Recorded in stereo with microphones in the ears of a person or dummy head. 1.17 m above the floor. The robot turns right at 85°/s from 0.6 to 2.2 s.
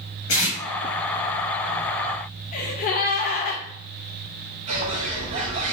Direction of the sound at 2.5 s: 40° left (ahead or behind).